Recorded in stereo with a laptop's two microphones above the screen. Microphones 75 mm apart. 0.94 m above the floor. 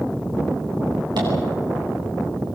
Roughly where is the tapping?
Right.